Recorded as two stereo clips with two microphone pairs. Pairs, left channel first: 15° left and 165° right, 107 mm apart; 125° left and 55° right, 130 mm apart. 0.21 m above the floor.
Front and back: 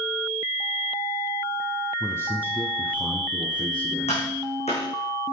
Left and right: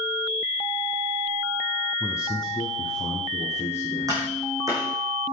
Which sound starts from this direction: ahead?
Tapping, at 4.1 s.